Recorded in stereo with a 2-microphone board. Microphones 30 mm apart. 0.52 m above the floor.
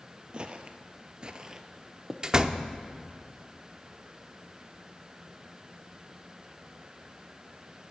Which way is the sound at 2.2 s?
25° right (ahead or behind).